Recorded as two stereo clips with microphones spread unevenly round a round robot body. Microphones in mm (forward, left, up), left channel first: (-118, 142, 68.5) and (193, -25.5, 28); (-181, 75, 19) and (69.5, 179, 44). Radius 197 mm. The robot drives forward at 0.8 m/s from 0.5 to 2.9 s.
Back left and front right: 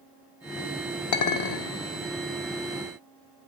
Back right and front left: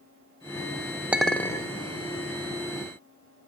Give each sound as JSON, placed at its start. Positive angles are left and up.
{"t": 1.1, "sound": "a clink", "azimuth_deg": 110, "distance_m": 1.1}